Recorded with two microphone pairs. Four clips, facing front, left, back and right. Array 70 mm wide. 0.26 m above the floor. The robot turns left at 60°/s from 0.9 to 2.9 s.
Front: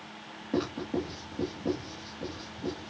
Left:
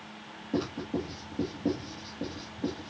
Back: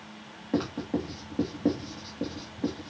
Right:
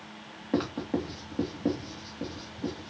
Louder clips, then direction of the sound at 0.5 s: Right 2 dB, back 1 dB; 105° right.